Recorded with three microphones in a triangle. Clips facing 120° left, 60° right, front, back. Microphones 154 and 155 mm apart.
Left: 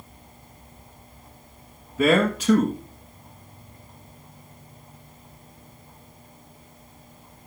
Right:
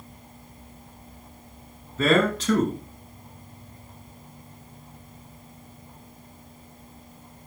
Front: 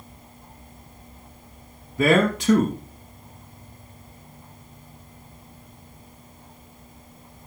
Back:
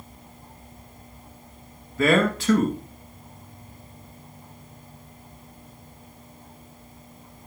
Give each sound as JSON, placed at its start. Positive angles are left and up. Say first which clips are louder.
{"t": 2.0, "sound": "a man speaking", "louder": "left 1 dB, front 1 dB", "azimuth_deg": 55, "distance_m": 1.1}